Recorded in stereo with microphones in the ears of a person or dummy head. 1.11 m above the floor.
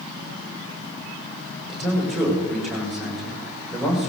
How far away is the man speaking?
About 6.5 m.